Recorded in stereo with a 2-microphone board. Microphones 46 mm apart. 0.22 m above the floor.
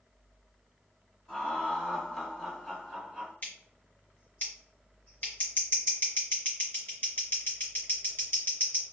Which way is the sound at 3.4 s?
40° left (ahead or behind).